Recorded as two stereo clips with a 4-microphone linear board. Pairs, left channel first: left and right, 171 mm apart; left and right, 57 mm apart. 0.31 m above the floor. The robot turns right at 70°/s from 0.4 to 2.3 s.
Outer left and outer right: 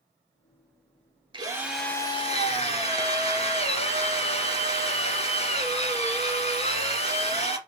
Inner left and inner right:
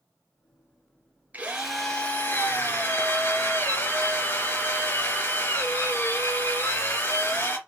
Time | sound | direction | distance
1.3 | a drill | 30° right | 2.5 m